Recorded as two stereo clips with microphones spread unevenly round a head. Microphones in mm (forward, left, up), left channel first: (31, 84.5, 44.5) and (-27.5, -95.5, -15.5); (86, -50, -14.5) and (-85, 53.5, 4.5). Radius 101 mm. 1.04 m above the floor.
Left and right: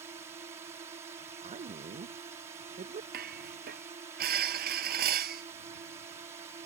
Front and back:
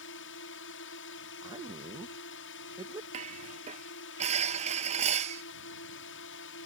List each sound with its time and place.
0.0 s a drone: 40° right
1.4 s a man speaking: 140° right
3.1 s dishes clattering: 150° right